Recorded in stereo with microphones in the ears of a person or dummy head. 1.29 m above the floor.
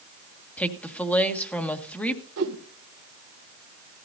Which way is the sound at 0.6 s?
10° left (ahead or behind).